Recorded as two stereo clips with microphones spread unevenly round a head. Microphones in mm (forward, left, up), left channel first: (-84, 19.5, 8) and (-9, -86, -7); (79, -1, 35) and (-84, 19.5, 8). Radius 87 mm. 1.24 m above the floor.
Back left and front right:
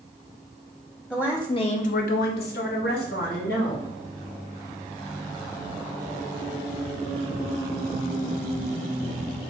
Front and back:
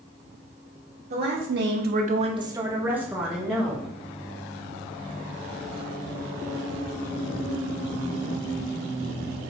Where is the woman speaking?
155° right, 0.8 m; by 3.9 s 80° left, 1.8 m.